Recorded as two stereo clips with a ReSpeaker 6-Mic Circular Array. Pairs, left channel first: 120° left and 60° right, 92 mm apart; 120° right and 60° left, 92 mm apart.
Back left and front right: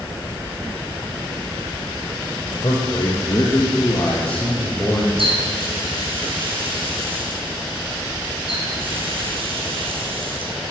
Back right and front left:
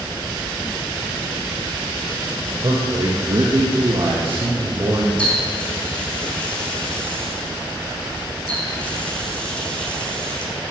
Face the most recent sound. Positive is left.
turn(degrees=-40)